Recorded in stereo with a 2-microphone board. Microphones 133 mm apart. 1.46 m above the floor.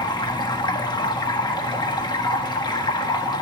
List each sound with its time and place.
0.0 s running water: 35° left (ahead or behind), 1.2 m